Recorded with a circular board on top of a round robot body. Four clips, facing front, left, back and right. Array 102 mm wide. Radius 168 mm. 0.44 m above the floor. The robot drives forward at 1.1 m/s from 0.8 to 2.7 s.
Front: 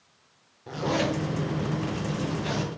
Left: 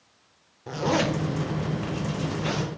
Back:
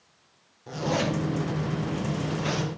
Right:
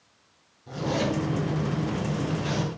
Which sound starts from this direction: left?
A zipper, at 0.7 s.